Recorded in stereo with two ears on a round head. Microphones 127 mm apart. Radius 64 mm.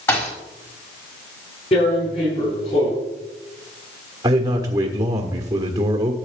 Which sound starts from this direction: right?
A man speaking, at 4.2 s.